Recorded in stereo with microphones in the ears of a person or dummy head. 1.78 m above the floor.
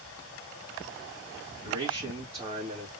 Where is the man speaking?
15° right (ahead or behind), 2.5 m; by 2.9 s 35° right (ahead or behind), 2.5 m.